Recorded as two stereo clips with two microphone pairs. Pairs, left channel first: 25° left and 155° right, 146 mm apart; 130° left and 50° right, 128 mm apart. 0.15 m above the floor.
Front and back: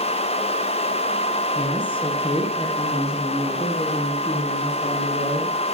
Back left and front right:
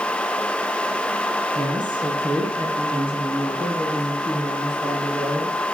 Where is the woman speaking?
15° right, 2 m; by 5.6 s 5° right, 4 m.